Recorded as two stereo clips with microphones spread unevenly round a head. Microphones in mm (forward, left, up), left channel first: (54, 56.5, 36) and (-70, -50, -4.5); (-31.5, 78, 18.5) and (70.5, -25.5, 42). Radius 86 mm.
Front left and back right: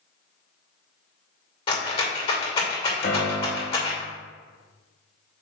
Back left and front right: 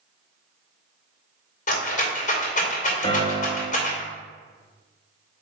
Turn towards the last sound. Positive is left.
turn(degrees=75)